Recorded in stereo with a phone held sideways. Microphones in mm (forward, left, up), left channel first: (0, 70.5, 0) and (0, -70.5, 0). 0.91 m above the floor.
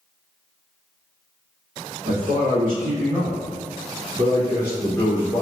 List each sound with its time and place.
2.0 s a man speaking: 75° right (ahead or behind), 1.5 m; by 5.4 s 30° left (ahead or behind), 0.6 m